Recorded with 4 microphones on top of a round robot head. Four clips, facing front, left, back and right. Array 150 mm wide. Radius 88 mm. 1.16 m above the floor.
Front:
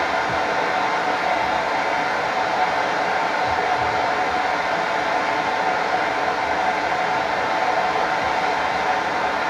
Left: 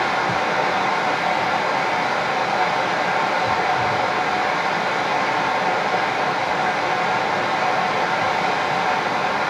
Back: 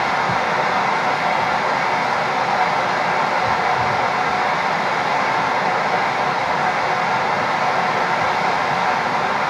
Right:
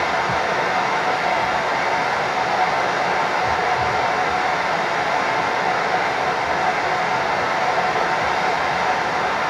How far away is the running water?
About 1.3 m.